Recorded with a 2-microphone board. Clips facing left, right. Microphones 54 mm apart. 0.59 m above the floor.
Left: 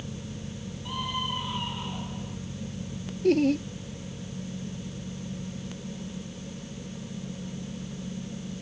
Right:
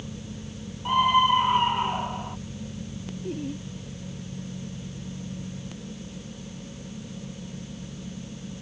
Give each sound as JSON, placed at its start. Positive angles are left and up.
{"t": 0.8, "sound": "a scream", "side_deg": -50}
{"t": 3.2, "sound": "laughter", "side_deg": 80}